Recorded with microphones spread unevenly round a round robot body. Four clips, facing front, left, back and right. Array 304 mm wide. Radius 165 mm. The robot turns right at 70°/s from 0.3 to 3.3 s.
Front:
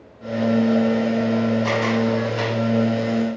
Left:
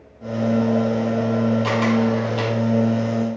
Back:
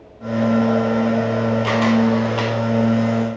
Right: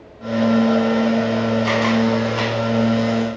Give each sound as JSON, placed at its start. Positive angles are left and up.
{"t": 1.6, "sound": "a camera shutter", "azimuth_deg": 155, "distance_m": 4.0}